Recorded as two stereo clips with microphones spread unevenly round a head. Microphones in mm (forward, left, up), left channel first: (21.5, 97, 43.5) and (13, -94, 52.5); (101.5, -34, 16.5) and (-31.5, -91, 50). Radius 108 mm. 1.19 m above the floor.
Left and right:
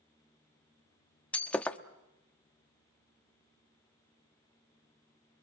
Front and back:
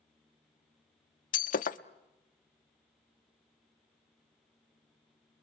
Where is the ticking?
I don't hear ticking.